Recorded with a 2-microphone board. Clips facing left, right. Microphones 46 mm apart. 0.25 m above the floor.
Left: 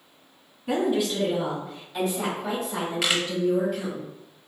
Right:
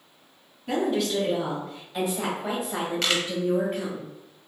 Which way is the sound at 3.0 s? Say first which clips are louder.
Left 1 dB; 10° left (ahead or behind).